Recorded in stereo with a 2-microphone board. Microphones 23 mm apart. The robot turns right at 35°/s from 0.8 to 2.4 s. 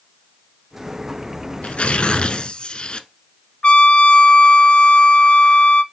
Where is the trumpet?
55° left (ahead or behind), 0.6 m.